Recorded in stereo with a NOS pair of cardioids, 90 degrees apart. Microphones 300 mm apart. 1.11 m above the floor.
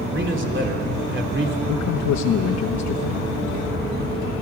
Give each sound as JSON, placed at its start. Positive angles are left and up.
{"t": 0.1, "sound": "a man speaking", "azimuth_deg": -40, "distance_m": 3.0}
{"t": 1.7, "sound": "a man speaking", "azimuth_deg": 70, "distance_m": 1.1}